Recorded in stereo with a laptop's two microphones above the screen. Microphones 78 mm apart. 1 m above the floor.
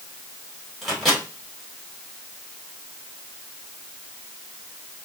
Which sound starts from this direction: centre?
A microwave, at 0.8 s.